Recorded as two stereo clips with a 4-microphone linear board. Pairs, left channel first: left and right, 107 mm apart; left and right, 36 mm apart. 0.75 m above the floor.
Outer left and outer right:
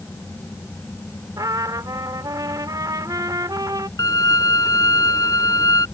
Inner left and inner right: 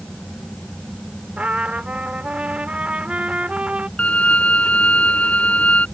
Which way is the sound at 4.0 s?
35° left (ahead or behind).